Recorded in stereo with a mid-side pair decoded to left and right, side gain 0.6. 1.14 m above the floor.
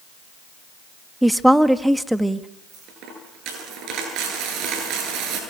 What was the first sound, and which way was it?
A woman speaking, 5° right.